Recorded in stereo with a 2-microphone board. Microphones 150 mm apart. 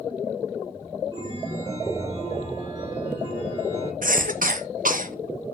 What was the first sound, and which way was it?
A chime, 25° right (ahead or behind).